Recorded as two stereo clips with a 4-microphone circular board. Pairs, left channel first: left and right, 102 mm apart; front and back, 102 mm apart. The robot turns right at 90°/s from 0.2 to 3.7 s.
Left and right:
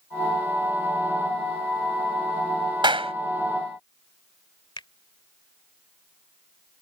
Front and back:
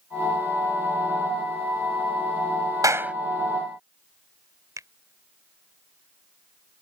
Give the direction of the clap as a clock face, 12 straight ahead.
4 o'clock.